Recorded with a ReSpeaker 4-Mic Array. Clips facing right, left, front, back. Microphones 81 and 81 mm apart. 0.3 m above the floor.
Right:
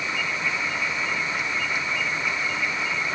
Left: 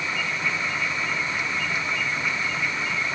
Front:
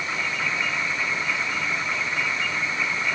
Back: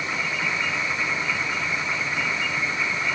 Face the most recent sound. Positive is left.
No sound to turn to.